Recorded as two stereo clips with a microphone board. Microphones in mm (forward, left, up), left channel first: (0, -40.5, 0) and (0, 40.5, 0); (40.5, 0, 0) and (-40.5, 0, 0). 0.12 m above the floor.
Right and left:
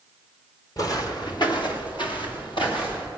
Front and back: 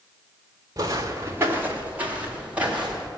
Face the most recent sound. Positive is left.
turn(degrees=-100)